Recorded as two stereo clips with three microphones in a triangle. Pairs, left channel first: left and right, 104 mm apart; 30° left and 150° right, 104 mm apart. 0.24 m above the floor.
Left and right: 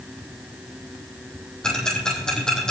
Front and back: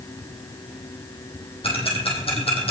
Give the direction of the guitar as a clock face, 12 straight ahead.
No guitar in this recording.